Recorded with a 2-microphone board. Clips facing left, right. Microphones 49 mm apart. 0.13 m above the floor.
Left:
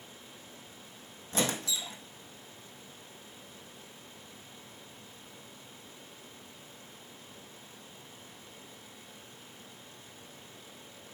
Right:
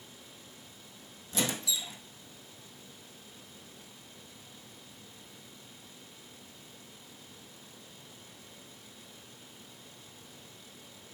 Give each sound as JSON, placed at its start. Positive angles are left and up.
{"t": 1.3, "sound": "a squeak", "side_deg": 45, "distance_m": 1.6}